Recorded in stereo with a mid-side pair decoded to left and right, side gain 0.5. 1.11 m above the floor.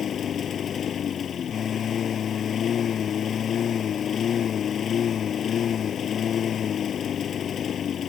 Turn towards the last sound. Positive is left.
turn(degrees=50)